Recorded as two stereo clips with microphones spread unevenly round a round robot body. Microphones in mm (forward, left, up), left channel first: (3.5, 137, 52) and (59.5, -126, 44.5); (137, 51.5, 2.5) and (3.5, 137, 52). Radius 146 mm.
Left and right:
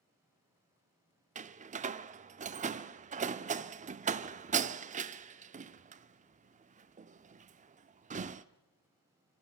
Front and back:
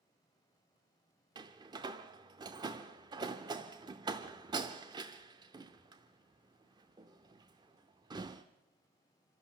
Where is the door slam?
135° right, 0.5 m.